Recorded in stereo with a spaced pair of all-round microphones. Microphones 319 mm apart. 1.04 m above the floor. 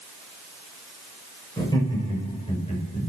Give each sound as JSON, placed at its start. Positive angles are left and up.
{"t": 1.6, "sound": "laughter", "side_deg": 15, "distance_m": 5.5}